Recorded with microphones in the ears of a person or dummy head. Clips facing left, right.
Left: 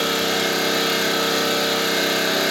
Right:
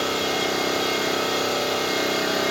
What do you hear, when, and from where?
0.0 s an engine running: 25° left (ahead or behind), 2 m